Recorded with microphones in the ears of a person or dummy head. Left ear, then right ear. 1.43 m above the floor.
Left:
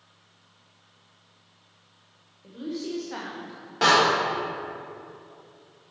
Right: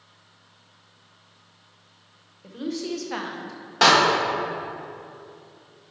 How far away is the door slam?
About 1.5 m.